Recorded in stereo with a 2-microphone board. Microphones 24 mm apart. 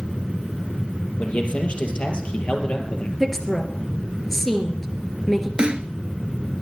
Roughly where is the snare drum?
Right.